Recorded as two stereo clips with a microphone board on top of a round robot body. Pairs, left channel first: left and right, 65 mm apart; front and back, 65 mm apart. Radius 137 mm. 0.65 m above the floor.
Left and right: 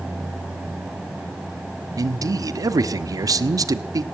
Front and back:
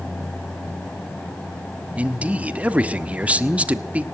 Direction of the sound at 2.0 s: 110° right.